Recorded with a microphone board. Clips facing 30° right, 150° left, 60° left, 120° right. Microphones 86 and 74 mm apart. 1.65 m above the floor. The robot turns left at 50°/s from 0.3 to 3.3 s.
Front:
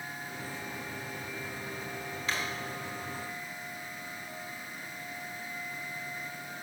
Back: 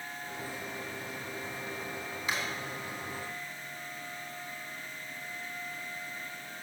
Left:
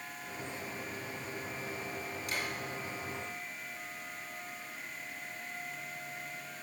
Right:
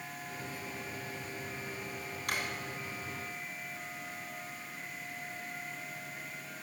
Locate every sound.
2.3 s a drawer: 130° right, 3 m; by 2.5 s 140° right, 3 m